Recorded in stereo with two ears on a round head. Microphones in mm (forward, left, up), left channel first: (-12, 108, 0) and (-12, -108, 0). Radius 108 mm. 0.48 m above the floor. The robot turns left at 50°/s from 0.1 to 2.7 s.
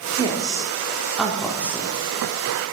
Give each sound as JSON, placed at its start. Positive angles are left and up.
{"t": 0.2, "sound": "a woman speaking", "side_deg": -20, "distance_m": 0.9}